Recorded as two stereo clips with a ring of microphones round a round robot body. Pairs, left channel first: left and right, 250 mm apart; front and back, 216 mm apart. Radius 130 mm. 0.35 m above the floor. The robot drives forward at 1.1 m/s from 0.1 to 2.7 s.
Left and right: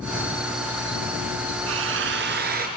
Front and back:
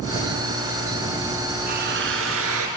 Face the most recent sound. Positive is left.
turn(degrees=-145)